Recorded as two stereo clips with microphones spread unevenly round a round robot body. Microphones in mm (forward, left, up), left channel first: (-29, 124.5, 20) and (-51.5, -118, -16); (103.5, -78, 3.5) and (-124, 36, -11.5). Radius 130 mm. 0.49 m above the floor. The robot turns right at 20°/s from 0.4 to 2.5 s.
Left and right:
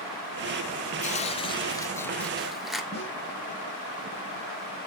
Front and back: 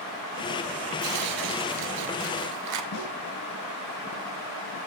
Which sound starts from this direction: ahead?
A snare drum, at 2.9 s.